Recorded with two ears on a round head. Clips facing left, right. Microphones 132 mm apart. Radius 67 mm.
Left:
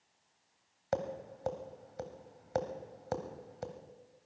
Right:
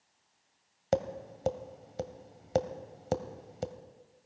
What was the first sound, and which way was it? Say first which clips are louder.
Tapping: right 5 dB; 30° right (ahead or behind).